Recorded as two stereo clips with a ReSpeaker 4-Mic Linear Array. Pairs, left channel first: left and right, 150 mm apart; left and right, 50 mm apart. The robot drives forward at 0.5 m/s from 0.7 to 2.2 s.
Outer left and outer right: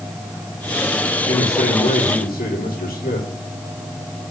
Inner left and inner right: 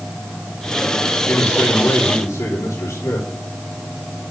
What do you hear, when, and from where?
1.3 s a man speaking: 75° left (ahead or behind), 3.5 m; by 4.2 s 80° left, 3.5 m